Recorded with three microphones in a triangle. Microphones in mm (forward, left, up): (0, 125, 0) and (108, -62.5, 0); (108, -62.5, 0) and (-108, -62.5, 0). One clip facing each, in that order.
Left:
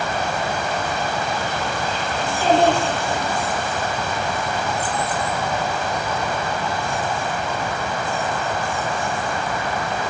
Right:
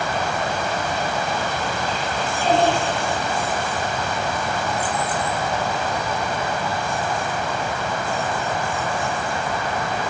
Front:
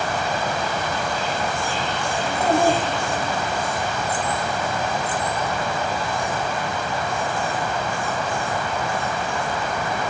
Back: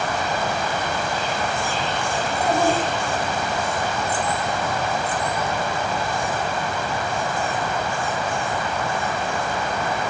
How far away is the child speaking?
About 3.5 m.